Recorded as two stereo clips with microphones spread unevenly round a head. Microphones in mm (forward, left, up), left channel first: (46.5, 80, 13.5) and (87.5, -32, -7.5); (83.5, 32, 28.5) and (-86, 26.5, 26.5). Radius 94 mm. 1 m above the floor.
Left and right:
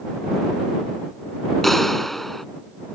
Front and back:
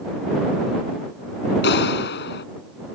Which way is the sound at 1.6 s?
20° left.